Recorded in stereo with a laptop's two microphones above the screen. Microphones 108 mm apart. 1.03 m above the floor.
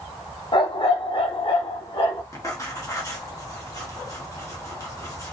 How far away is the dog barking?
About 1.1 m.